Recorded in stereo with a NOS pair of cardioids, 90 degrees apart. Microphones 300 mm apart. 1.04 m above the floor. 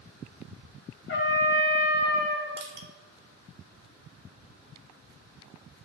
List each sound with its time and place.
1.1 s a trumpet: 45° left, 0.8 m
2.6 s crushing: 35° right, 0.7 m